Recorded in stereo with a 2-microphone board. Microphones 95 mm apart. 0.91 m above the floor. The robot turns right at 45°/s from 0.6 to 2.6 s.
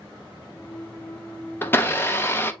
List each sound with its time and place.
1.6 s a blender: 20° left (ahead or behind), 0.5 m; by 2.5 s 25° left (ahead or behind), 0.5 m